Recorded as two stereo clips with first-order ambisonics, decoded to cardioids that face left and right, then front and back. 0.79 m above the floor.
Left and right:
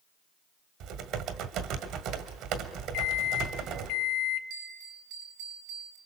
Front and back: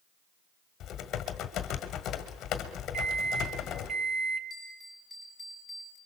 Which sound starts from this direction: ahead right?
Typing on a keyboard, at 0.8 s.